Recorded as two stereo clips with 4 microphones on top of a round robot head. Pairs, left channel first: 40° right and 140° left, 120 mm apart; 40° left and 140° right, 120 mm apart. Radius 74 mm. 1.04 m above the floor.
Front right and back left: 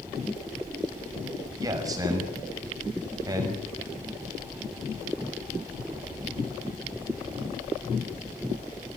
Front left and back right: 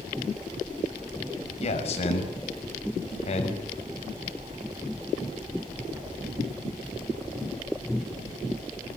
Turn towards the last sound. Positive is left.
turn(degrees=75)